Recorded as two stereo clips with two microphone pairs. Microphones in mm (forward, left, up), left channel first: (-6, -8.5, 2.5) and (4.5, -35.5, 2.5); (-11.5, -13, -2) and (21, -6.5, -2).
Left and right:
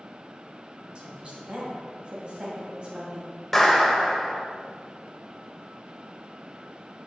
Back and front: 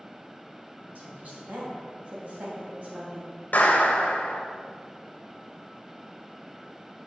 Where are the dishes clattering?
I don't hear dishes clattering.